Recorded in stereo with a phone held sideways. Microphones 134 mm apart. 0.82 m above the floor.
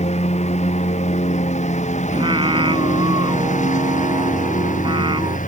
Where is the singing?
35° right (ahead or behind).